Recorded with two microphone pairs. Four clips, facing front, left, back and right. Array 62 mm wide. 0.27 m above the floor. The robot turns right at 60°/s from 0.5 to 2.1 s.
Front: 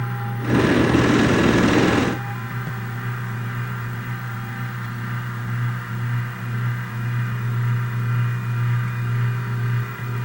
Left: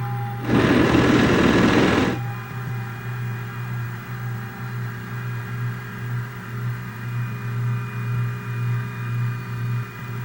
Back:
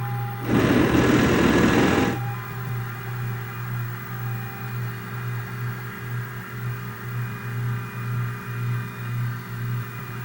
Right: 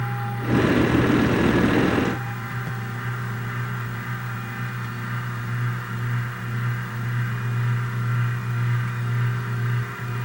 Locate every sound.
Only background noise.